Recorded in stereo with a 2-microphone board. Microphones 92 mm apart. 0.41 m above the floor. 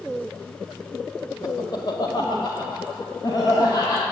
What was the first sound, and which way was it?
Laughter, 45° left (ahead or behind).